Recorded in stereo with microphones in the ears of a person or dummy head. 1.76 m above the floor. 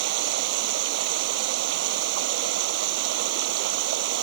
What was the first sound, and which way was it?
Running water, 75° right (ahead or behind).